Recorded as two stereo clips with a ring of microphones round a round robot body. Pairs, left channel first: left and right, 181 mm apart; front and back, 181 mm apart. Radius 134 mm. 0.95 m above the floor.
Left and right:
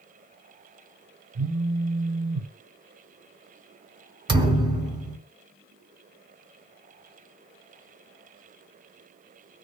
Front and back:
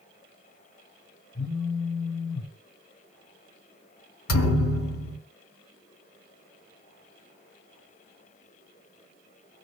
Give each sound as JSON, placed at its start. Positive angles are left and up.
{"t": 1.4, "sound": "a phone buzzing", "azimuth_deg": -85, "distance_m": 0.8}
{"t": 4.3, "sound": "a thud", "azimuth_deg": -25, "distance_m": 1.5}